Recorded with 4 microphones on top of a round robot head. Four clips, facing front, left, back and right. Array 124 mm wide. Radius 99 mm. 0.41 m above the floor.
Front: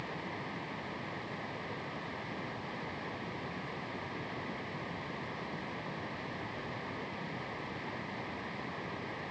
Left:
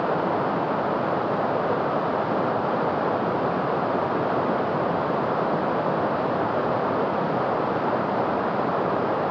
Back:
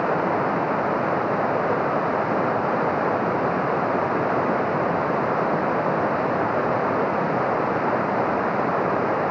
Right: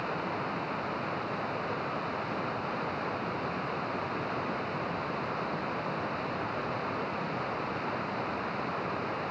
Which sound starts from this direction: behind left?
Running water, at 0.0 s.